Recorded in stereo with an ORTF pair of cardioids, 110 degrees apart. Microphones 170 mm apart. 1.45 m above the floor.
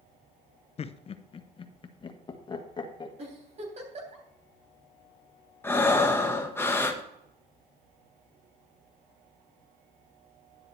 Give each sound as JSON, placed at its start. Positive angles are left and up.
{"t": 0.8, "sound": "laughter", "azimuth_deg": 40, "distance_m": 0.7}
{"t": 3.2, "sound": "a giggle", "azimuth_deg": -40, "distance_m": 3.5}
{"t": 5.6, "sound": "breathing", "azimuth_deg": 15, "distance_m": 1.3}